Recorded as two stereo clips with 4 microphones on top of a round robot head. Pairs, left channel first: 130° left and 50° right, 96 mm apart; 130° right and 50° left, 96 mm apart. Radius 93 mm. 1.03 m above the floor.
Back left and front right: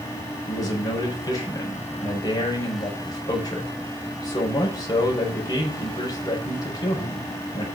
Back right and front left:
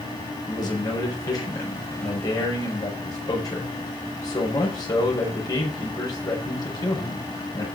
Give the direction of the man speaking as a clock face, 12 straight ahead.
6 o'clock.